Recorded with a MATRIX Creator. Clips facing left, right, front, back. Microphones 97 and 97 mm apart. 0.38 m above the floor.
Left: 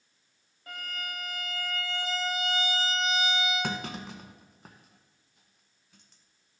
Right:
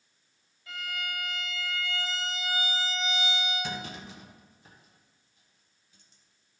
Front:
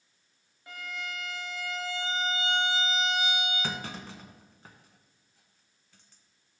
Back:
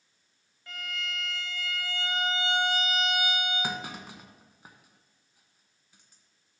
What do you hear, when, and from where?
0.7 s a violin: 65° left, 1.0 m
3.6 s a clunk: 105° left, 0.8 m